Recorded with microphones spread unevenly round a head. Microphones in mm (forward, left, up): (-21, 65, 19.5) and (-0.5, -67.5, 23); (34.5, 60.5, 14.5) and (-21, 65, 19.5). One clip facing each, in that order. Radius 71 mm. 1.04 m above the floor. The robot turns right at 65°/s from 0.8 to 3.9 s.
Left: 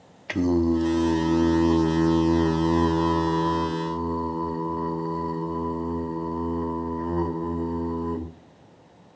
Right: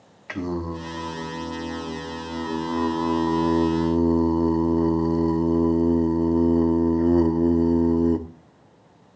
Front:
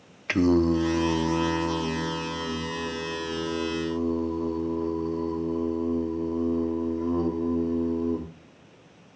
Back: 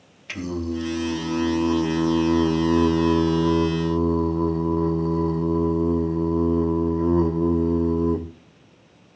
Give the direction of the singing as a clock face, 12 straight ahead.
11 o'clock.